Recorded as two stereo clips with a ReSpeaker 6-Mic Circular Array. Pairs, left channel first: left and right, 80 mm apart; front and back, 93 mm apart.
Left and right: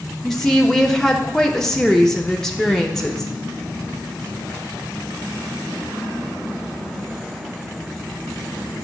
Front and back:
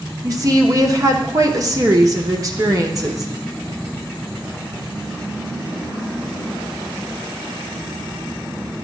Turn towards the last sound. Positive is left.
turn(degrees=170)